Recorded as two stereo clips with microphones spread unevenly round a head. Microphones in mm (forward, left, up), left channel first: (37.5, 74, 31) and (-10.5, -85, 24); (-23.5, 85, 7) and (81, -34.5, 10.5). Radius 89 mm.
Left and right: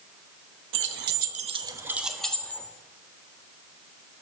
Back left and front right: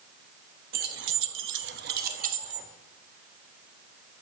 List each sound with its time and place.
0.7 s keys jangling: 95° right, 0.9 m; by 2.7 s 5° right, 1.5 m